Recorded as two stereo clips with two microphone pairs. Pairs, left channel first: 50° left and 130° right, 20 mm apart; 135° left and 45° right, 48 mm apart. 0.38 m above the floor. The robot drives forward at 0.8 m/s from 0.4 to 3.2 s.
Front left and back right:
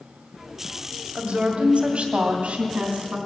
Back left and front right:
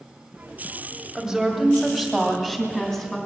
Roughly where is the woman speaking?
Behind right.